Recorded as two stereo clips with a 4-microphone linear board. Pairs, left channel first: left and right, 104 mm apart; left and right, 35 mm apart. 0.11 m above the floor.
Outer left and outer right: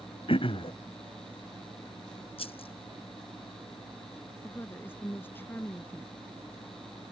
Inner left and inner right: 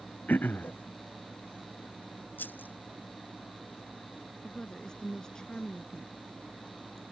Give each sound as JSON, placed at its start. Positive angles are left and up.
{"t": 0.3, "sound": "throat clearing", "side_deg": 60}
{"t": 2.4, "sound": "a rattle", "side_deg": 65}
{"t": 4.4, "sound": "a woman speaking", "side_deg": 20}